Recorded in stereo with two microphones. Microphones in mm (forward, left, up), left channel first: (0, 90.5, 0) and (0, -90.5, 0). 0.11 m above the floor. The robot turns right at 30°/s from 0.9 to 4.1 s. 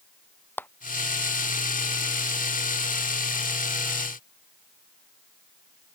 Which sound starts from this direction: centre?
A clap, at 0.6 s.